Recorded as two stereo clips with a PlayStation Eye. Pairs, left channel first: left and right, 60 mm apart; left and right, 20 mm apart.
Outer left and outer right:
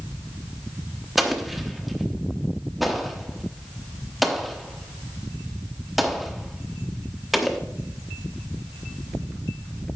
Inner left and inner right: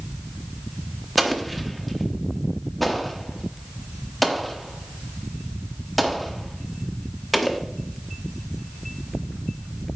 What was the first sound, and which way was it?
An explosion, centre (ahead or behind).